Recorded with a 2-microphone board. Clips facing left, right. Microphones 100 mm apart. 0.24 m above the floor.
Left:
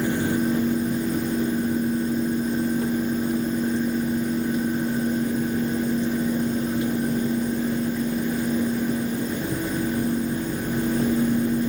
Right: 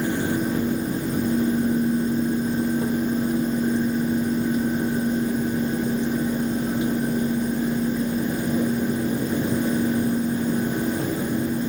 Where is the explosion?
I don't hear an explosion.